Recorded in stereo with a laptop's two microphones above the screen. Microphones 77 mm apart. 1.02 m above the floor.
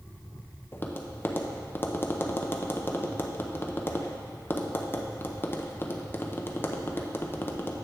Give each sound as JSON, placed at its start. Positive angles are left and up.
{"t": 0.7, "sound": "tapping", "side_deg": 25, "distance_m": 0.7}